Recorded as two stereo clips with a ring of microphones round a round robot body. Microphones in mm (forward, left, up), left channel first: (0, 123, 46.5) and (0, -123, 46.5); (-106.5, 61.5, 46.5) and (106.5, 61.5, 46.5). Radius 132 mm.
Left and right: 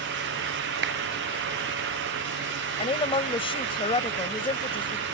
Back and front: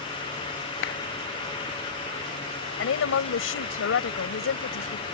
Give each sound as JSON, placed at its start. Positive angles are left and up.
{"t": 0.8, "sound": "a clap", "azimuth_deg": -135}
{"t": 2.8, "sound": "a woman speaking", "azimuth_deg": 160}